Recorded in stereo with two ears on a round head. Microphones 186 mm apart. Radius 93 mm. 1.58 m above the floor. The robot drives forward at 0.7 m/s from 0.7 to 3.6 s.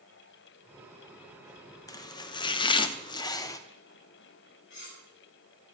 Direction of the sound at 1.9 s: 15° left (ahead or behind).